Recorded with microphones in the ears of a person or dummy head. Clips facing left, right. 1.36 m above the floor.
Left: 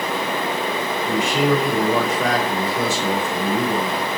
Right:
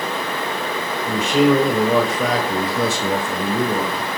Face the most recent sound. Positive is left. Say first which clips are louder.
# right 4 dB
turn(degrees=-85)